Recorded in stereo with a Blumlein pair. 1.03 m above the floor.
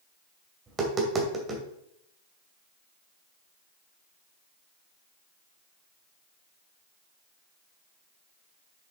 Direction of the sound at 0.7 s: 20° right.